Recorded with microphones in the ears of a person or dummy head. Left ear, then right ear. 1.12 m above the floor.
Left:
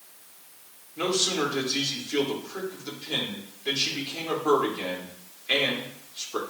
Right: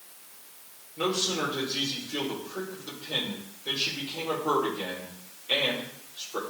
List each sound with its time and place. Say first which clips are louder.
1.0 s a man speaking: left 2 dB; 65° left (ahead or behind), 2.5 m